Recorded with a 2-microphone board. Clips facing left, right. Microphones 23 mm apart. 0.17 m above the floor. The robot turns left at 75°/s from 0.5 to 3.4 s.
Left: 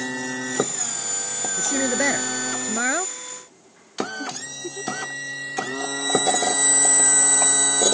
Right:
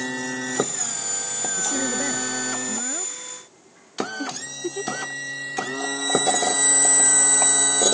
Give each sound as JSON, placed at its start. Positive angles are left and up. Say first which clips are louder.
{"t": 1.6, "sound": "a woman speaking", "louder": "left 4 dB", "azimuth_deg": 165}
{"t": 4.2, "sound": "a giggle", "louder": "right 2 dB", "side_deg": -35}